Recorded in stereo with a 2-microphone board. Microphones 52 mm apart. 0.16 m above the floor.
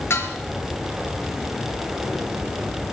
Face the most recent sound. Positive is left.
turn(degrees=55)  # may be behind; listen again after turning